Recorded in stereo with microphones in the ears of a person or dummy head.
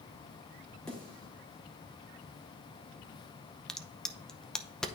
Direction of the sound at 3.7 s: 5° left (ahead or behind).